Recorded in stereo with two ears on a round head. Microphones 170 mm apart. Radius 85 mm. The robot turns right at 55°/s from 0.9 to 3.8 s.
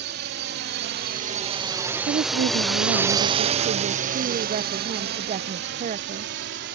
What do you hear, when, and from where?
0.0 s a drone: 55° right (ahead or behind); by 6.8 s 60° right (ahead or behind)
2.1 s a woman speaking: 135° right; by 6.3 s 40° right